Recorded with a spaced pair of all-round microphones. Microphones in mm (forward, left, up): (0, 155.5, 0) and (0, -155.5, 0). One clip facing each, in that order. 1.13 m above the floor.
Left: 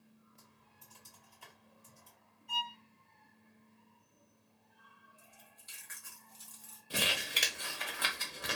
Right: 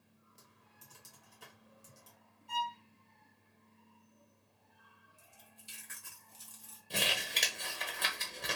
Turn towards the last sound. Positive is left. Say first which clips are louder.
# even
turn(degrees=5)  # may be behind; listen again after turning